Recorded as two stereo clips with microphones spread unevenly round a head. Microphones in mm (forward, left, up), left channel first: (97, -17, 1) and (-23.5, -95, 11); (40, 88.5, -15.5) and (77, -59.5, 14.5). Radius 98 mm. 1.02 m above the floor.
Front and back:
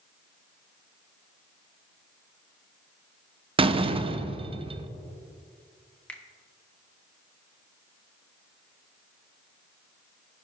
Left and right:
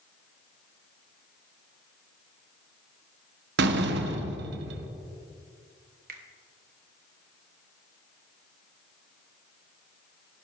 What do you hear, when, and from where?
3.6 s a door slam: 90° right, 0.6 m
6.1 s a finger snap: 50° right, 1.1 m